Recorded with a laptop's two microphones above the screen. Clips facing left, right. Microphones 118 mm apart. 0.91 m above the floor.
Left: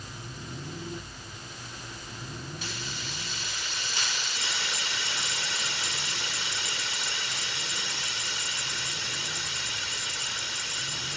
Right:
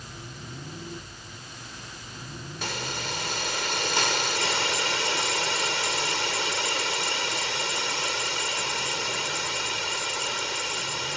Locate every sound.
2.6 s a hiss: 70° right (ahead or behind)